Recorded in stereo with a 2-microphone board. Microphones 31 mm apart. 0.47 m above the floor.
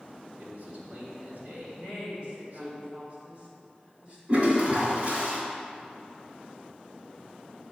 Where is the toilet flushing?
40° right (ahead or behind), 2.5 m.